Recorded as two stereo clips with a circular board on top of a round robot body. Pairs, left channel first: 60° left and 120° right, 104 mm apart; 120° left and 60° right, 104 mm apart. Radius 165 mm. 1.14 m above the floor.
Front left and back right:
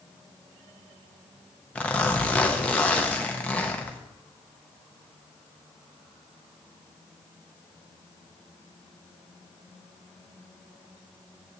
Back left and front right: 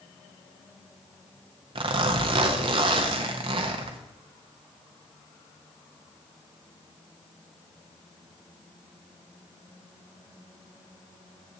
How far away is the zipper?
About 0.5 m.